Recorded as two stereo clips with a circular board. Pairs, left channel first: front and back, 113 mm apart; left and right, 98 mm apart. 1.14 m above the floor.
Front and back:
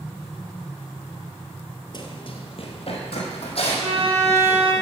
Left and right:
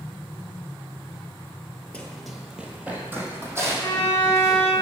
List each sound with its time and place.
1.9 s running footsteps: 15° left, 1.5 m; by 4.8 s 35° right, 4.5 m
3.8 s a violin: 160° left, 2 m